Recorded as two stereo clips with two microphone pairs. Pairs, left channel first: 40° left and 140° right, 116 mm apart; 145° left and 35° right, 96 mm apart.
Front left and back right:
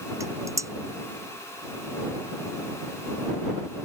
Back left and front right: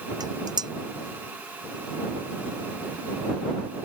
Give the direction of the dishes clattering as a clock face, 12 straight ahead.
3 o'clock.